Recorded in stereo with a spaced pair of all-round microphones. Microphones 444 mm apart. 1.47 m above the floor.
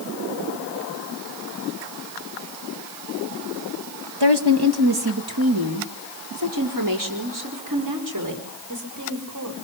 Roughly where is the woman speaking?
Right.